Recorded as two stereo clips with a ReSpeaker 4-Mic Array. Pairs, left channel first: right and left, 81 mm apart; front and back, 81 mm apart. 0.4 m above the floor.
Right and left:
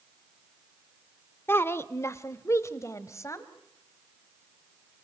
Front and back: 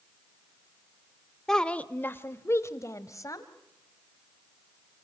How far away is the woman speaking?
About 0.8 m.